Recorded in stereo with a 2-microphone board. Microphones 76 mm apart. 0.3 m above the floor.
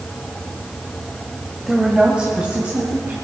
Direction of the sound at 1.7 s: Centre (ahead or behind).